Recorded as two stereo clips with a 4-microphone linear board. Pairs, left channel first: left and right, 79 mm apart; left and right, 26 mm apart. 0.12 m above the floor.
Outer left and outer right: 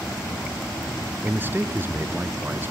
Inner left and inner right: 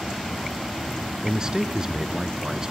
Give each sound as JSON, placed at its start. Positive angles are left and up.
{"t": 1.2, "sound": "a man speaking", "side_deg": -30, "distance_m": 1.2}